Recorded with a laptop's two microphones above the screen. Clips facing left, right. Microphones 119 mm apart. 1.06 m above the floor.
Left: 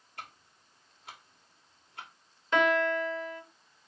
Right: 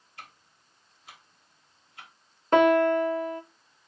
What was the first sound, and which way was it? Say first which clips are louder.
Ticking: left 2 dB; 70° left (ahead or behind).